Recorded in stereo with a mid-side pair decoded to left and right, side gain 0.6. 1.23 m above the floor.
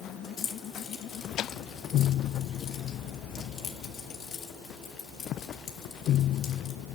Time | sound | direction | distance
0.4 | keys jangling | 55° left | 2.5 m